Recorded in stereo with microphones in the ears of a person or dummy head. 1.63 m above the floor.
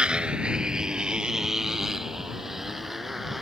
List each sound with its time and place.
0.0 s a motorcycle: 10° right (ahead or behind); by 3.4 s 5° right (ahead or behind)